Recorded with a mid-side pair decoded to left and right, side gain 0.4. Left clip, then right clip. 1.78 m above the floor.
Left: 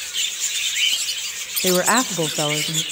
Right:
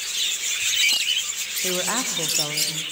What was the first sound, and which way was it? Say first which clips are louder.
A woman speaking: left 8 dB; 65° left.